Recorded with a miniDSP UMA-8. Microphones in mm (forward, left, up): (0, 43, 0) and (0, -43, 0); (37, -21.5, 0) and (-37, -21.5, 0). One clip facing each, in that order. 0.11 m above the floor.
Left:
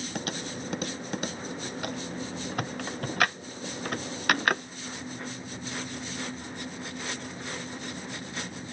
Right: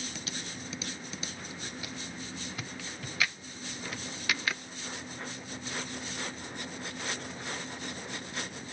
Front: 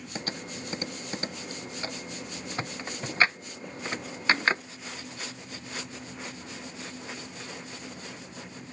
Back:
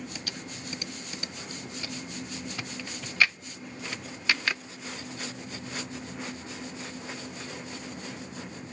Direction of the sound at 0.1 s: 55° left.